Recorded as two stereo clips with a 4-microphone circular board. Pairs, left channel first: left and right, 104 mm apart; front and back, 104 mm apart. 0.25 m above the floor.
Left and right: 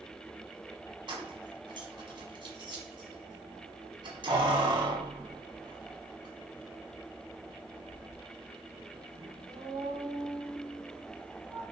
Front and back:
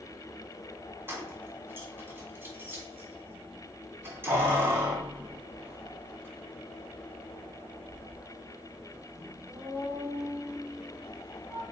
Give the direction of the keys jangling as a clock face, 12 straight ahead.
4 o'clock.